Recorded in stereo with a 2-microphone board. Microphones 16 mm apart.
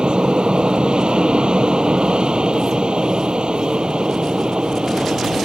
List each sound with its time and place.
0.0 s an aircraft: 70° right (ahead or behind)